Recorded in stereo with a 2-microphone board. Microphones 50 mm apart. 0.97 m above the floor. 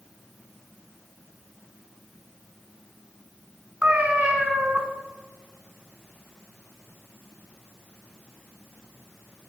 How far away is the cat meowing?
About 1.4 m.